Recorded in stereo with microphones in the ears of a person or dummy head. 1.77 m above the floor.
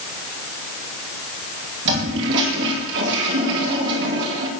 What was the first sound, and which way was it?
A toilet flushing, 60° right (ahead or behind).